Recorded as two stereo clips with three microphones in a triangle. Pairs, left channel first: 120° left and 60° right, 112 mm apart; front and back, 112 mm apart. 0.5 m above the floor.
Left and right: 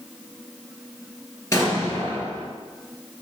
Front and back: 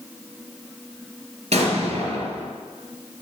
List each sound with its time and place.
1.5 s an explosion: 175° right, 2 m